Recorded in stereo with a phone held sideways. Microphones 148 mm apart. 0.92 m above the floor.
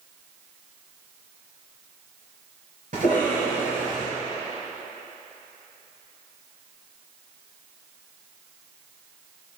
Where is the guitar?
I don't hear a guitar.